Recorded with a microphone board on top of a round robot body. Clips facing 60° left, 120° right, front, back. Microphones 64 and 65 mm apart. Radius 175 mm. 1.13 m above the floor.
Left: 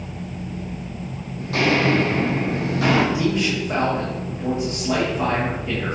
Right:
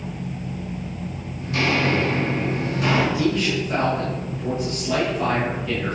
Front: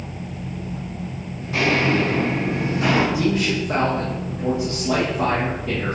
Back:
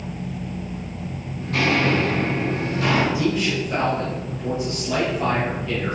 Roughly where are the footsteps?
Left.